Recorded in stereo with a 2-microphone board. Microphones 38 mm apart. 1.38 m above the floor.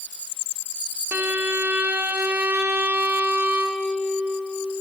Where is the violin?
70° right (ahead or behind), 1.6 m.